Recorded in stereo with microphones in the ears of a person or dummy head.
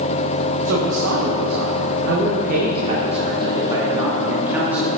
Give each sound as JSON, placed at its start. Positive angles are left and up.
{"t": 0.7, "sound": "a woman speaking", "side_deg": -70, "distance_m": 2.0}